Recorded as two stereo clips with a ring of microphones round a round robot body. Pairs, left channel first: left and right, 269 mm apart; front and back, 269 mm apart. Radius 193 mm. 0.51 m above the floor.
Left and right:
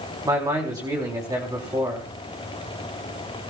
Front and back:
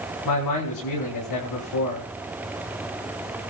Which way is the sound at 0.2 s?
15° right.